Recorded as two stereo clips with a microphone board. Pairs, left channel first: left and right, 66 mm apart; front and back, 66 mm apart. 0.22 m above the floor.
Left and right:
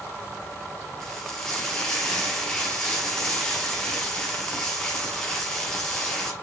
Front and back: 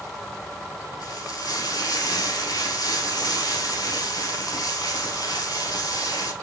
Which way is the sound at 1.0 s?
10° left.